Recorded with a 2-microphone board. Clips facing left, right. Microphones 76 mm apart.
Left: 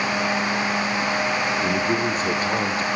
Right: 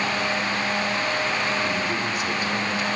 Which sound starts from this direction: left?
A man speaking, at 1.6 s.